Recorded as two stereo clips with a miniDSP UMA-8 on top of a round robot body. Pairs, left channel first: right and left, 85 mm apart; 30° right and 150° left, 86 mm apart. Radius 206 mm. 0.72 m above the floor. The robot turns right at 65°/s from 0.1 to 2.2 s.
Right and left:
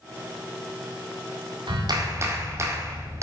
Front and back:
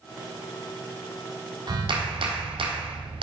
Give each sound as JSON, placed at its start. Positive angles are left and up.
{"t": 1.7, "sound": "a clap", "azimuth_deg": 115, "distance_m": 1.5}